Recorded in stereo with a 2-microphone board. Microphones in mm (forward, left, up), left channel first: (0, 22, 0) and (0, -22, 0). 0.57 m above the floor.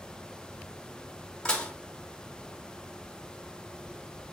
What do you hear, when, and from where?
1.4 s dishes clattering: 20° left (ahead or behind), 1.0 m